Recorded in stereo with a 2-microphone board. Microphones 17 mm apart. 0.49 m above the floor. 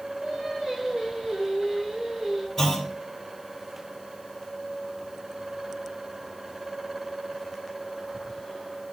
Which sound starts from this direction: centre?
Singing, at 0.2 s.